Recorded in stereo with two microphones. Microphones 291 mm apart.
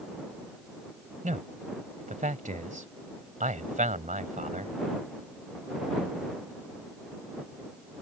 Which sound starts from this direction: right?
A man speaking, at 1.2 s.